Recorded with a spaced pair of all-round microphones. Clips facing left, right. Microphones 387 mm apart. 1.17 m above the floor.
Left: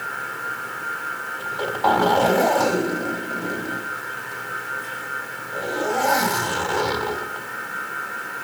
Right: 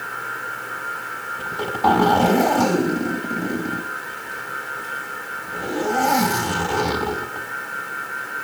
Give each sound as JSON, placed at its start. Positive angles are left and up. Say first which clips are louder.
{"t": 1.4, "sound": "a zipper", "louder": "right 1 dB", "side_deg": -45, "distance_m": 3.0}